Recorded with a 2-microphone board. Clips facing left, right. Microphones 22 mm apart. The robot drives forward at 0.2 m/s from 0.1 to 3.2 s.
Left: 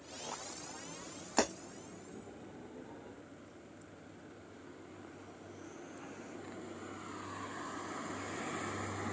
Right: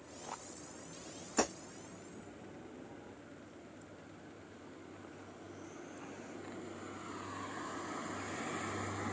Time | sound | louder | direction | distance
1.4 | breaking glass | left 2 dB | 40° left (ahead or behind) | 1.7 m